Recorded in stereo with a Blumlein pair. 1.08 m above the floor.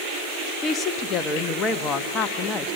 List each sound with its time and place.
0.6 s a woman speaking: 25° left, 1.2 m